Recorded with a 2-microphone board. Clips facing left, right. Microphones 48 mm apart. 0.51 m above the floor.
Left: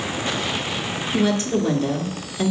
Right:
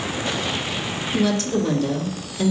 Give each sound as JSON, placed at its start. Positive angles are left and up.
{"t": 1.1, "sound": "a woman speaking", "side_deg": 25, "distance_m": 1.4}